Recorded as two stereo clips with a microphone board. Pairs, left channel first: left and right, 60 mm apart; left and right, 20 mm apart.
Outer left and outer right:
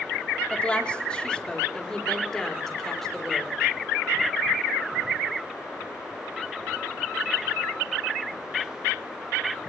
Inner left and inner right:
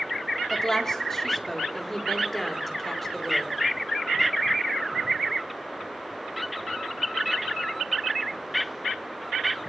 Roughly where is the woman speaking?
Left.